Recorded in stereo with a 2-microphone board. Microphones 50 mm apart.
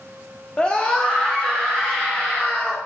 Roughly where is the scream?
Left.